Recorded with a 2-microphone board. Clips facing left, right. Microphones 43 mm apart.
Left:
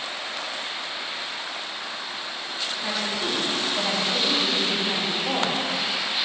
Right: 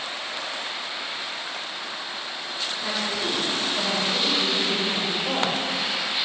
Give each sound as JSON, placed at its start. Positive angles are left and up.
{"t": 2.8, "sound": "a woman speaking", "side_deg": 5, "distance_m": 4.0}